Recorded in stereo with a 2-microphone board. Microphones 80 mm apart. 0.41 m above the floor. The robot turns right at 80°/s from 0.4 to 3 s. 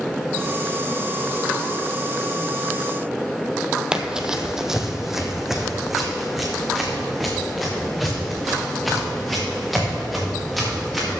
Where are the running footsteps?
10° right (ahead or behind), 0.8 m; by 11.1 s centre (ahead or behind), 5 m.